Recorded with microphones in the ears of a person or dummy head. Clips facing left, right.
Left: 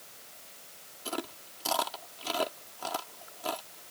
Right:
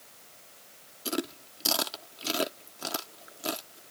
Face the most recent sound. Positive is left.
turn(degrees=-35)  # may be behind; listen again after turning